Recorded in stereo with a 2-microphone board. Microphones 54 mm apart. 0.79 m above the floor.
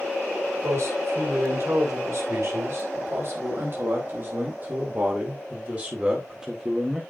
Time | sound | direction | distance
0.6 | a man speaking | 60° right (ahead or behind) | 5 m